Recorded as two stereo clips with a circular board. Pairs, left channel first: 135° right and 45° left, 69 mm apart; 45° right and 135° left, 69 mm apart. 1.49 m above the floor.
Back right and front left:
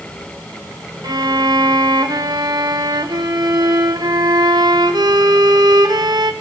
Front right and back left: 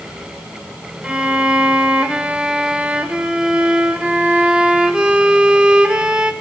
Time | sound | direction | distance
1.0 | a violin | 60° left | 1.0 m